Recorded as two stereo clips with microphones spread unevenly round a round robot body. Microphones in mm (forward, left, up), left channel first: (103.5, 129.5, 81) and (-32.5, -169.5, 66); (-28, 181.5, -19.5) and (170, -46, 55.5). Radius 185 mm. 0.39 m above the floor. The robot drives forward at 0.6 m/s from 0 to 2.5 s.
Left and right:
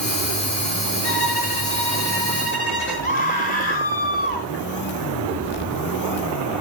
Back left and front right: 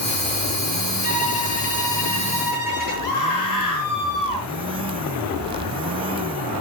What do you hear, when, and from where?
1.0 s a violin: 115° left, 6.5 m; by 3.1 s 125° left, 7 m
3.0 s a scream: 135° left, 4.5 m